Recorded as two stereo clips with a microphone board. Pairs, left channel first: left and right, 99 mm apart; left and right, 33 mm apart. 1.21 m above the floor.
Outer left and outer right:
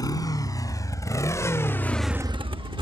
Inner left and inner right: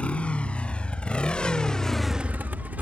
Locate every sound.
0.0 s a motorcycle: 40° left (ahead or behind); by 2.8 s 55° right (ahead or behind)